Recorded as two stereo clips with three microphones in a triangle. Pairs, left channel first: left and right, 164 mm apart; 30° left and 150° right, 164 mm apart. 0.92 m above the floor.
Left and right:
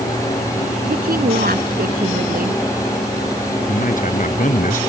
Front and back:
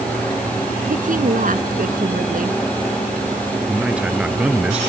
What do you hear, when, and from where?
0.8 s a woman speaking: 115° right
3.7 s a man speaking: 125° left